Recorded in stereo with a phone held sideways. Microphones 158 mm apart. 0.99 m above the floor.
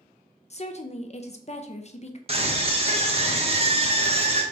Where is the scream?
40° right (ahead or behind), 1.0 m.